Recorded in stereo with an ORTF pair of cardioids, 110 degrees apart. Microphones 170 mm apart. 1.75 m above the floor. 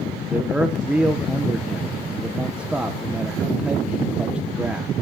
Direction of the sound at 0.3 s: 5° right.